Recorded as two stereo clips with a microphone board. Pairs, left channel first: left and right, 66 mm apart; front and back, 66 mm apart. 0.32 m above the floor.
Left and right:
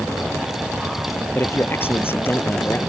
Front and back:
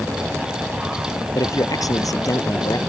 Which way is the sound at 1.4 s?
35° left.